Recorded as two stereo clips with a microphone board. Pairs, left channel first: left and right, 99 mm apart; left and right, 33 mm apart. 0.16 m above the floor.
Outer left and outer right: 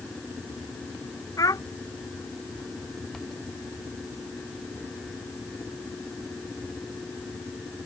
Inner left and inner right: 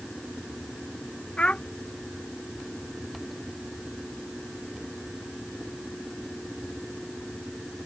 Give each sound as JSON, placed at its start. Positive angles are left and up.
{"t": 1.4, "sound": "a child speaking", "side_deg": 35}